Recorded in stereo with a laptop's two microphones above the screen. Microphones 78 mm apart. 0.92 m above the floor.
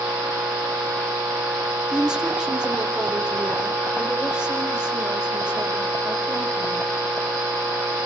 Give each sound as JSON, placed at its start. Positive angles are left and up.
{"t": 1.9, "sound": "a woman speaking", "side_deg": -10, "distance_m": 3.0}